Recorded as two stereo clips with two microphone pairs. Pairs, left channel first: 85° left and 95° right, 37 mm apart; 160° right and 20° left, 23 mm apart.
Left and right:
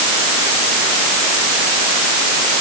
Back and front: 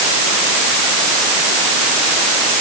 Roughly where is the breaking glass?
I don't hear breaking glass.